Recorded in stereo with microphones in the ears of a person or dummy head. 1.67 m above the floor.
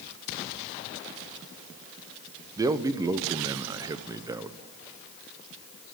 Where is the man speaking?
20° right (ahead or behind), 0.7 m.